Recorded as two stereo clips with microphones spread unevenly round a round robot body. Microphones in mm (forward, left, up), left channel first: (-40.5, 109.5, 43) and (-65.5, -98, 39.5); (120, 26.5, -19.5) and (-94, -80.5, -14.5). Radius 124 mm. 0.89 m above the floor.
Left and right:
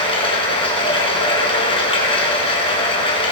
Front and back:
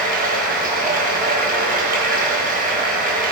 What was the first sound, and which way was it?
Running water, 150° left.